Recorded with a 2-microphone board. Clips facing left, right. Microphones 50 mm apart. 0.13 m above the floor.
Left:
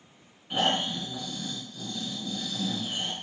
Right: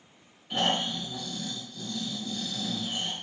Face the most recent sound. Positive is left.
turn(degrees=15)  # may be behind; listen again after turning